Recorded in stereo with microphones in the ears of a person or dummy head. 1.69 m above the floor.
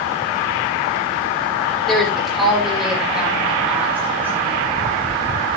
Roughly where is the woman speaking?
Centre.